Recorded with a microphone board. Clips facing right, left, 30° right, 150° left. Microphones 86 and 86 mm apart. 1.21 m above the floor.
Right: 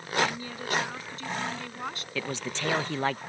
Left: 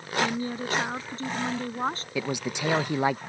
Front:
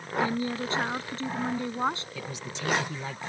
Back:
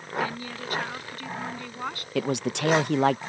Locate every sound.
0.2 s a woman speaking: 30° left; by 2.0 s 35° left
2.1 s a man speaking: 165° left